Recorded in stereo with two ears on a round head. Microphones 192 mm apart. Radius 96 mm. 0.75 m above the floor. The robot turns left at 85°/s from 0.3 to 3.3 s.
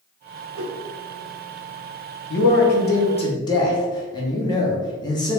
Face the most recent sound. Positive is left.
turn(degrees=25)